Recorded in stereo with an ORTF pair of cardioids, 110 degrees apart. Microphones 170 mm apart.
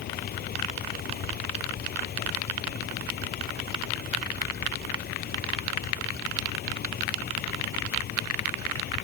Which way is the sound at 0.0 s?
65° left.